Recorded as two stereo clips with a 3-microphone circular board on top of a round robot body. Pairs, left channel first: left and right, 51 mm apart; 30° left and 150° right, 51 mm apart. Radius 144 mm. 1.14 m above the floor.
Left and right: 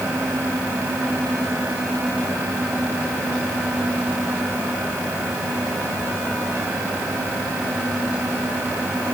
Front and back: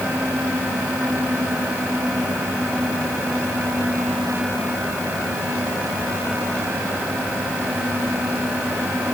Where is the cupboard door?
No cupboard door in this recording.